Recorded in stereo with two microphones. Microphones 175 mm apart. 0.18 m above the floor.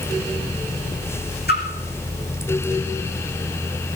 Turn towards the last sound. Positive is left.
turn(degrees=65)  # may be behind; listen again after turning